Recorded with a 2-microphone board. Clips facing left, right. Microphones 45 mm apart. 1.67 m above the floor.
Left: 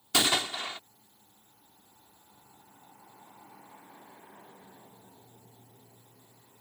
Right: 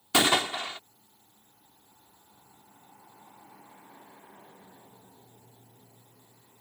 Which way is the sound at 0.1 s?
25° right (ahead or behind).